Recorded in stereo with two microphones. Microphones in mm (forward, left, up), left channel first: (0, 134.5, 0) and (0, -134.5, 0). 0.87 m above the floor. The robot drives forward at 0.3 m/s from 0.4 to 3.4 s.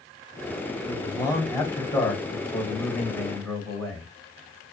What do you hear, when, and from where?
0.8 s a man speaking: 15° left (ahead or behind), 0.8 m; by 4.1 s 10° left (ahead or behind), 1.5 m